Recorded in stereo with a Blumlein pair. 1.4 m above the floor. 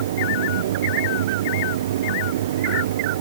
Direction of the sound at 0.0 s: 60° right.